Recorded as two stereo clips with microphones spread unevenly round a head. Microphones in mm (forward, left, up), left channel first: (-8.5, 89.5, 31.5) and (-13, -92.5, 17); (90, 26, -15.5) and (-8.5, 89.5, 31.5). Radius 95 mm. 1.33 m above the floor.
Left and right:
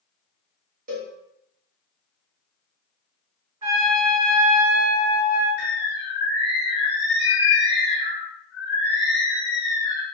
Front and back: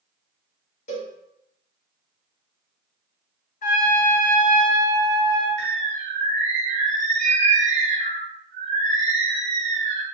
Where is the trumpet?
30° right, 1.5 m.